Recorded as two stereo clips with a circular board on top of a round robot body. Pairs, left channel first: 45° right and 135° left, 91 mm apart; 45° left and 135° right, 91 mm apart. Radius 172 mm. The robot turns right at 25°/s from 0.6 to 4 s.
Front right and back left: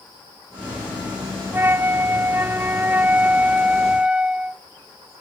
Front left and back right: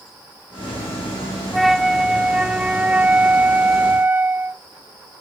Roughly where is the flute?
Behind left.